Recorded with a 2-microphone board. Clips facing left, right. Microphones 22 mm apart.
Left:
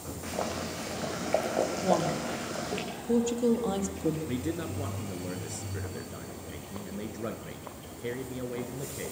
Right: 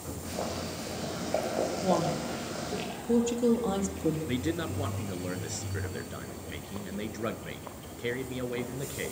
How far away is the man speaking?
About 2 m.